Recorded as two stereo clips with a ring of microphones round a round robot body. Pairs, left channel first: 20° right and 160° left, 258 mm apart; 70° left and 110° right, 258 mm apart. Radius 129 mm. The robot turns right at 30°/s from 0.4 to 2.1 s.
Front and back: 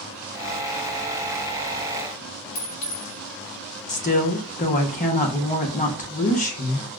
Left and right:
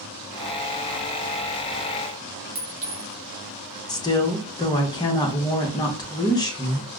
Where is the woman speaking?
5° left, 0.8 m.